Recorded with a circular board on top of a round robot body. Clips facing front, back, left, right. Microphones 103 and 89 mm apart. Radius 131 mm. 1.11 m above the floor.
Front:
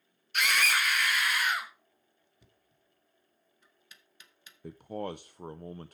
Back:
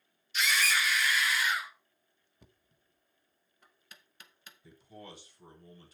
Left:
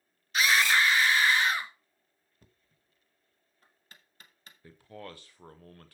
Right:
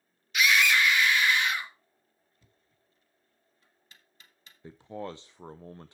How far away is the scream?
About 1.6 m.